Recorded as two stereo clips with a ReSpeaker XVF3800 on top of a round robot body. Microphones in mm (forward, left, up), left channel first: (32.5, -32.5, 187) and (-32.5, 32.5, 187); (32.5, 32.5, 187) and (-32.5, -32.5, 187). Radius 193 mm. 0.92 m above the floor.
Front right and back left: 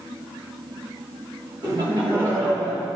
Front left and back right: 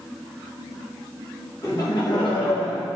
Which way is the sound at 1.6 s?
100° left.